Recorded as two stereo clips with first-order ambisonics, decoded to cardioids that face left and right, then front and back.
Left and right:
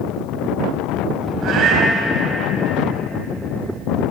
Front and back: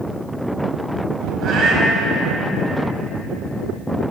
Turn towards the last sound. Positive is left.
turn(degrees=-135)